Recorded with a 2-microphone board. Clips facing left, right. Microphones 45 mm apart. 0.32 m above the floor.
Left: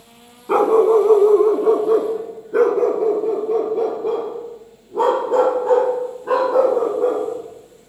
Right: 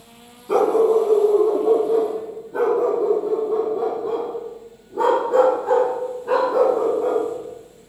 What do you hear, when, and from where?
0.5 s a dog barking: 30° left (ahead or behind), 0.7 m; by 7.9 s 50° left (ahead or behind), 4.5 m